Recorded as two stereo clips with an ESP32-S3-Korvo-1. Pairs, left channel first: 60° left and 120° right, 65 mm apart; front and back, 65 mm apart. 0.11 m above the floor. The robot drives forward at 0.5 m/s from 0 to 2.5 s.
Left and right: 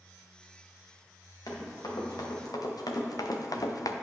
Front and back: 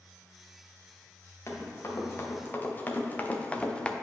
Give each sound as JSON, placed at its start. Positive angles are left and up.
{"t": 1.5, "sound": "running footsteps", "azimuth_deg": 45, "distance_m": 2.5}